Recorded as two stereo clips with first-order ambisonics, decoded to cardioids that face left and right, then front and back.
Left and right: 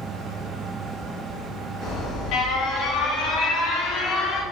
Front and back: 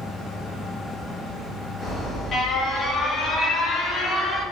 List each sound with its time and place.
1.8 s an alarm: 60° left, 2 m